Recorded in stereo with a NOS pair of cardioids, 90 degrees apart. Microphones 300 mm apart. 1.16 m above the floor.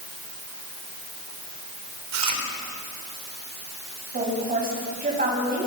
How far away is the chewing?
About 4 m.